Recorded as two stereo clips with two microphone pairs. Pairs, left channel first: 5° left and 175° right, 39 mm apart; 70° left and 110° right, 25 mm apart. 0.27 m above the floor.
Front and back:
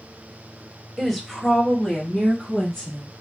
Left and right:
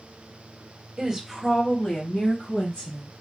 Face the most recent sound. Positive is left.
turn(degrees=75)